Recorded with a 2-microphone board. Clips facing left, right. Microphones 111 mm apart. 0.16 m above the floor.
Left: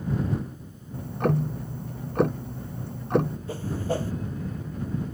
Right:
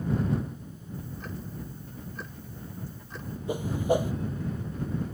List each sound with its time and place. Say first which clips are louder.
0.9 s ticking: left 15 dB; 65° left (ahead or behind)
3.5 s a whoosh: right 7 dB; 15° right (ahead or behind)